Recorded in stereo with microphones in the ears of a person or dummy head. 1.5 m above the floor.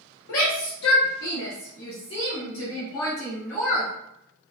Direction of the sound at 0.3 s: 80° left.